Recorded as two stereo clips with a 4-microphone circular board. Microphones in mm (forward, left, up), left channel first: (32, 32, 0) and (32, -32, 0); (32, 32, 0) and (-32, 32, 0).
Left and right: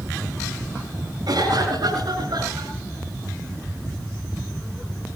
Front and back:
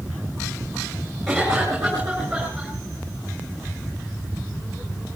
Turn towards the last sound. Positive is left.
turn(degrees=-120)